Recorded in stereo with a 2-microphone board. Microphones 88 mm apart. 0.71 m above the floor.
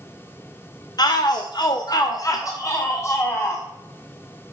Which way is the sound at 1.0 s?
50° left (ahead or behind).